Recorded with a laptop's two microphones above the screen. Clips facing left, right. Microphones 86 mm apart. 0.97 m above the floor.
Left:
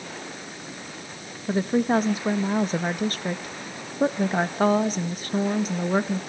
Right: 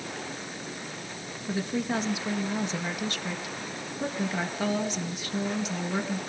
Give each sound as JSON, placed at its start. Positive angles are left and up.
{"t": 1.5, "sound": "a woman speaking", "side_deg": 40, "distance_m": 1.3}